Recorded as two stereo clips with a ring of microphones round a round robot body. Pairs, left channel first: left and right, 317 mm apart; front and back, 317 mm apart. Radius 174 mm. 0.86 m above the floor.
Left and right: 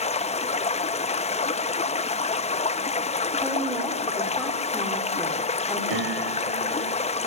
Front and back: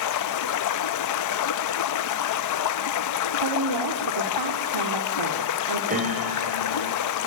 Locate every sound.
0.0 s running water: 20° left, 0.9 m
3.4 s a woman speaking: straight behind, 2.5 m
5.9 s a piano: 115° right, 5 m